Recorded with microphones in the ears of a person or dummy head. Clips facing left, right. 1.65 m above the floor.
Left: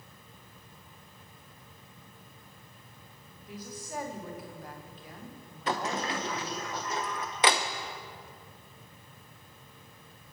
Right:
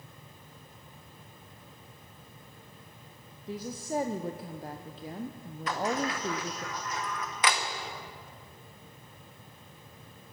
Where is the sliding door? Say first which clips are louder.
Right 1 dB; 25° left (ahead or behind), 0.8 m.